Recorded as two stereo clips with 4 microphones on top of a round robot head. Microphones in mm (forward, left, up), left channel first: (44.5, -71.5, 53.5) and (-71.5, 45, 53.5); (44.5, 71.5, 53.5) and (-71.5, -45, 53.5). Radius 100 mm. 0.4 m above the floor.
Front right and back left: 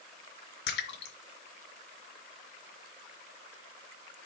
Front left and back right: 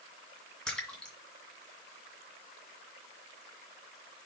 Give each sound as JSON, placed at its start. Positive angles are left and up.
{"t": 0.7, "sound": "a splash", "azimuth_deg": -40, "distance_m": 1.9}